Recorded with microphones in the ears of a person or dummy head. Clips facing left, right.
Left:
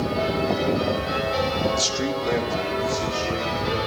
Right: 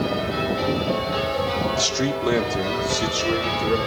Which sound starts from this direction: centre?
A man speaking, at 1.8 s.